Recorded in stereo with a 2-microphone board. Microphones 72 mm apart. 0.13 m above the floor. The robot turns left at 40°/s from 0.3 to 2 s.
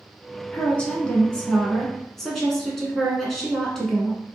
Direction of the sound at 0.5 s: 20° left (ahead or behind).